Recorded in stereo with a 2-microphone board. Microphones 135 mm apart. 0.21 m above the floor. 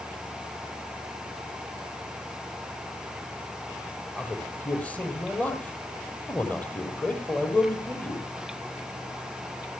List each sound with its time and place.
4.2 s a man speaking: 10° left (ahead or behind), 7.5 m